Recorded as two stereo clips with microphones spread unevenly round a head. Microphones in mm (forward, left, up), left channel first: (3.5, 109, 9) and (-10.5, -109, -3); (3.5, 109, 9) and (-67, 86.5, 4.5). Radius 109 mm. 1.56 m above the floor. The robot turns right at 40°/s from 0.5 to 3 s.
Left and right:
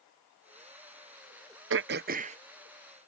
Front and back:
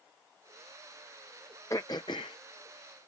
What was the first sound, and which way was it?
Throat clearing, 55° right.